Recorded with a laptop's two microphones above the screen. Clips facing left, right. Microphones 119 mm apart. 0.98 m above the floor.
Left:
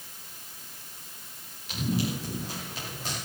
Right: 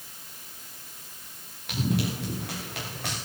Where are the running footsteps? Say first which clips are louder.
Right 1 dB; 70° right (ahead or behind), 8 m; by 3.2 s 75° right (ahead or behind), 7 m.